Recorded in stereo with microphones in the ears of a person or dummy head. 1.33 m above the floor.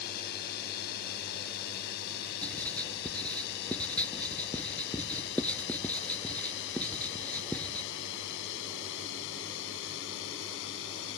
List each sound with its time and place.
0.0 s a drone: 55° left (ahead or behind); by 11.2 s 75° left (ahead or behind)
2.4 s writing: 10° left (ahead or behind)